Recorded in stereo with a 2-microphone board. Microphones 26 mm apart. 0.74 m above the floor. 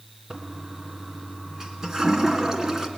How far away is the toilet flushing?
About 2 m.